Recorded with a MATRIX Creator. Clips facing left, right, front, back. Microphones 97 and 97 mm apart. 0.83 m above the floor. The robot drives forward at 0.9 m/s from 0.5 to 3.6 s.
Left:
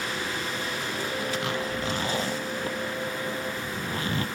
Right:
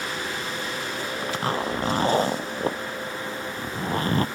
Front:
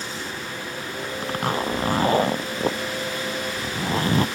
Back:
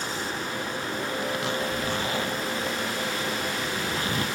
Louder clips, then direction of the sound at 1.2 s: Right 6 dB, front 7 dB; 40° right.